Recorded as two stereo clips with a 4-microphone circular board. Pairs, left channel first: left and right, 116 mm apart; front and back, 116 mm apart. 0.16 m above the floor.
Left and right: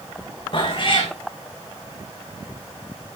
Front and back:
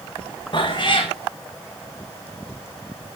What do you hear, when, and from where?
0.5 s a cat meowing: 45° left, 2.5 m